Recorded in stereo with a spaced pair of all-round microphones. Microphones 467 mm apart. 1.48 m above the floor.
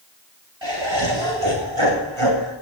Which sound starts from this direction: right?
Laughter, at 0.6 s.